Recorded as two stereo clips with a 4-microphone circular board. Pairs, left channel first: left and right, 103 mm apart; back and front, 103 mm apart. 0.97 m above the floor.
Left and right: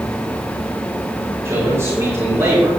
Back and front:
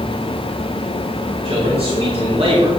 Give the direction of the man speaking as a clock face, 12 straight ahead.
1 o'clock.